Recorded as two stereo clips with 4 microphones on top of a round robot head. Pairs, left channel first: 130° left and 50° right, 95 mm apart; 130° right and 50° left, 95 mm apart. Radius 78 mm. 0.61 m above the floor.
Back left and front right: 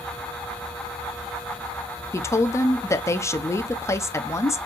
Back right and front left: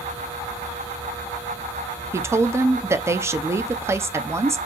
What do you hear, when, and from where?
2.1 s a woman speaking: 90° left, 0.7 m